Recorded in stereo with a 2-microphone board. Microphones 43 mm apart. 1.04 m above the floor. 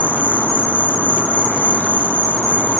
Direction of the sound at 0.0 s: 55° right (ahead or behind).